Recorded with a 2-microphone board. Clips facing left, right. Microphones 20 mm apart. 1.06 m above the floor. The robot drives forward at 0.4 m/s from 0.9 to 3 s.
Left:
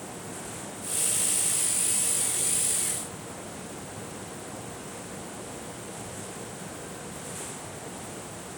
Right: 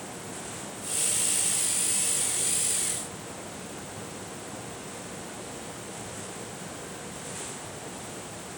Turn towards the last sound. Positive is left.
No sound to turn to.